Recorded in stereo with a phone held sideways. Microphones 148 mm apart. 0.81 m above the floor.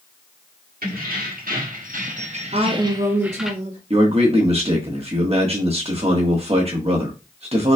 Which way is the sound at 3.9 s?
45° right (ahead or behind).